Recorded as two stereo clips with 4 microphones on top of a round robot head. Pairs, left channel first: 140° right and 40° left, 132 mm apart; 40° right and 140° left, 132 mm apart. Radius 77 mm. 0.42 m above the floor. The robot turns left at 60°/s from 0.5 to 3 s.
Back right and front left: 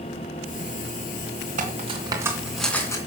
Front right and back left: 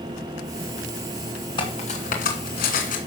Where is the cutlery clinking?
10° left, 2.5 m; by 3.0 s 70° right, 2.5 m.